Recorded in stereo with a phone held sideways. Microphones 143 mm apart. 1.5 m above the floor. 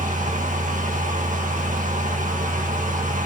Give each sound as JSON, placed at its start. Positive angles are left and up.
{"t": 0.0, "sound": "a fan", "side_deg": -65, "distance_m": 1.8}